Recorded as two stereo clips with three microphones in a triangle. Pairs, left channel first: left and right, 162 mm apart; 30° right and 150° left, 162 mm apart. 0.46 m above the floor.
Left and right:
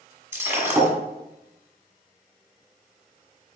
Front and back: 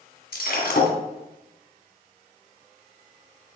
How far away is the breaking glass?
About 1.8 m.